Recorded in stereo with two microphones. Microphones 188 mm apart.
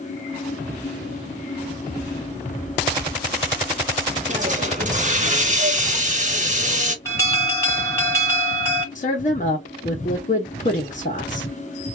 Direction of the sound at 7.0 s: 15° left (ahead or behind).